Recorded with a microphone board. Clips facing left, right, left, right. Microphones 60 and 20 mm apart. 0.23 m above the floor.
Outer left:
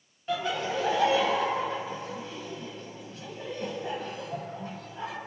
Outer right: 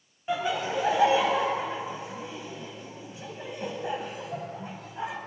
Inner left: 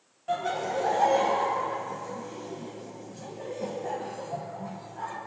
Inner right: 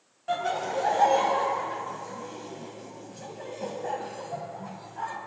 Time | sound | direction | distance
0.3 | laughter | 20° right (ahead or behind) | 1.1 m